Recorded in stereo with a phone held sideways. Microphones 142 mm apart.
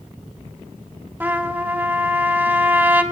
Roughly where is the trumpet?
Centre.